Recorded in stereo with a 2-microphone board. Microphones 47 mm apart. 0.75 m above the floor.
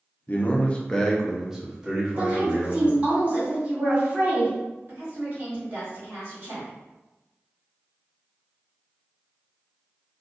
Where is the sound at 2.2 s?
30° right (ahead or behind), 1.7 m.